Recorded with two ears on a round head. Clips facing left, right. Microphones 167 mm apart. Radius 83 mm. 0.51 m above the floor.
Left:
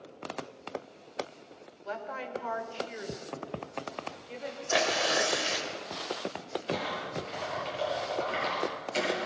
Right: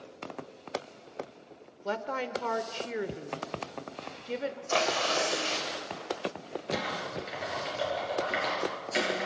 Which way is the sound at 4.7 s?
15° left (ahead or behind).